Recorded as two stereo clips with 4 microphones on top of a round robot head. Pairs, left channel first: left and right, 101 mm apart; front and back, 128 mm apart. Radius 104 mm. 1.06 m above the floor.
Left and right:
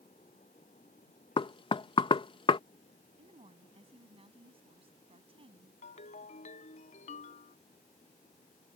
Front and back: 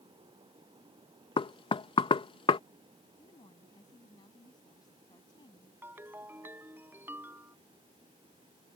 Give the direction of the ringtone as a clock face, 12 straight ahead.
8 o'clock.